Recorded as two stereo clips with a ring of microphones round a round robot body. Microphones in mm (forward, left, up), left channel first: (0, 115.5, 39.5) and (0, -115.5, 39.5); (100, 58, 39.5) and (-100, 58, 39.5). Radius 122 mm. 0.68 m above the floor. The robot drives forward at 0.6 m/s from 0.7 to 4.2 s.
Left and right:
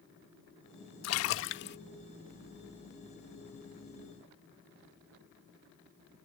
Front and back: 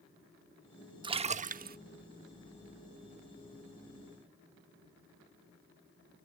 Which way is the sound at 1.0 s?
110° left.